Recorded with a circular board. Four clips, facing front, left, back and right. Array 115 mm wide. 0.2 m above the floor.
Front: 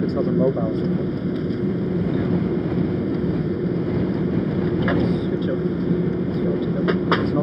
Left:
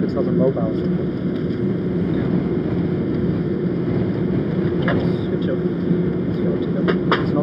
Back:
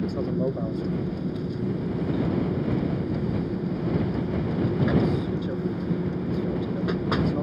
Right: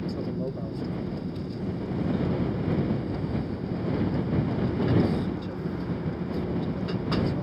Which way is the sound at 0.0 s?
60° left.